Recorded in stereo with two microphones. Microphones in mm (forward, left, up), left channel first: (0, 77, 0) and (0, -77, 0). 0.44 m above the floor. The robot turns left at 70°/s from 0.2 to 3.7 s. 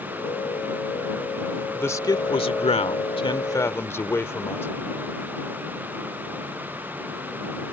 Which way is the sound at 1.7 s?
165° left.